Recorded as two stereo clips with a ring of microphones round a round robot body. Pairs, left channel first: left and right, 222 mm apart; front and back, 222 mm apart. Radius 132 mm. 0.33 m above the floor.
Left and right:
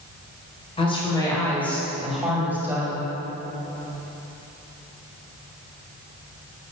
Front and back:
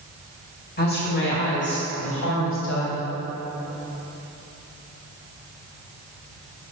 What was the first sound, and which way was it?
A woman speaking, 30° left.